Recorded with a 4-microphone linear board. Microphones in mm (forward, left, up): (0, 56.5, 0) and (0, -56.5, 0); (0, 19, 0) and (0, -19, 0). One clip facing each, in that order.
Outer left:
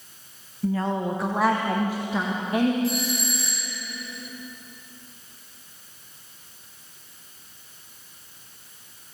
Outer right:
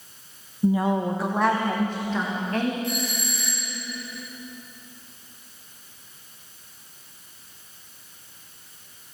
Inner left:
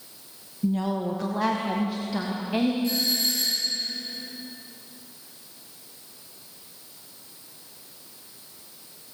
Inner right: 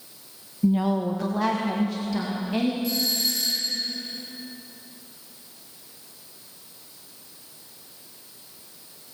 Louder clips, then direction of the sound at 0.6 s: Outer right 3 dB, inner right 3 dB; 20° right (ahead or behind).